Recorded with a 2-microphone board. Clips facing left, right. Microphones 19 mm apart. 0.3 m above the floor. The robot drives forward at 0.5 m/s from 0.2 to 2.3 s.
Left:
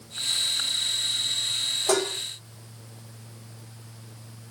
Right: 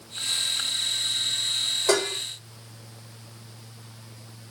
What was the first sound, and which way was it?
Dishes clattering, 75° right (ahead or behind).